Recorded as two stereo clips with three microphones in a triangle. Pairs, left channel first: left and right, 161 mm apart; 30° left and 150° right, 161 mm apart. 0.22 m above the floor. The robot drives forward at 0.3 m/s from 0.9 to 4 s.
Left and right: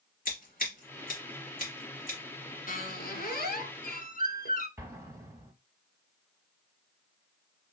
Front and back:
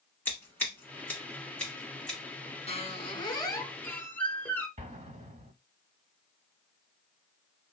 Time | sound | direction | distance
0.2 | scissors | 105° left | 1.9 m
2.7 | a squeak | 75° left | 0.7 m
4.8 | an explosion | 155° right | 0.9 m